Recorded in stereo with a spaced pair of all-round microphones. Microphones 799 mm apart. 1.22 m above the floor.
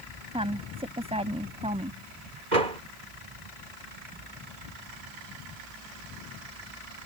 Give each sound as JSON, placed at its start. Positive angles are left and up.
{"t": 0.3, "sound": "a woman speaking", "side_deg": -5}
{"t": 2.5, "sound": "a door slam", "side_deg": -65}